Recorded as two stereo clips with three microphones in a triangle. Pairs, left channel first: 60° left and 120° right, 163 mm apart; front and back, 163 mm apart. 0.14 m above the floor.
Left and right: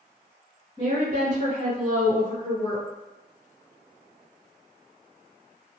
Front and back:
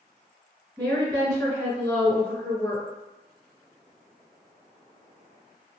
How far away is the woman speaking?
About 1.6 m.